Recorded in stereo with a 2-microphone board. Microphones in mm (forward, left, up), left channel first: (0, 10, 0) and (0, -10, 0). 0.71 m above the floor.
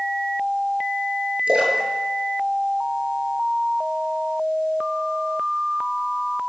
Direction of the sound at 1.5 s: 85° right.